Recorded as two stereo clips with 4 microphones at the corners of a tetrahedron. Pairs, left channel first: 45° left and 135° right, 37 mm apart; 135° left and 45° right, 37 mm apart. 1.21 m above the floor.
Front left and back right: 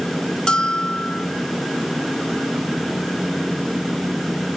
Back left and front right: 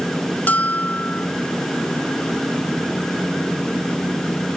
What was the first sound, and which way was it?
A bell, 110° left.